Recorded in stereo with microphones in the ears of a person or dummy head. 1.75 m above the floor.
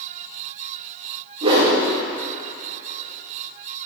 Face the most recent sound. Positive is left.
turn(degrees=-30)  # may be behind; listen again after turning